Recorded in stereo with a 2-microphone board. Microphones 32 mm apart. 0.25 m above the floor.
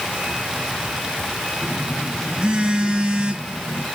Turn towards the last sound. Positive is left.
turn(degrees=-25)  # may be behind; listen again after turning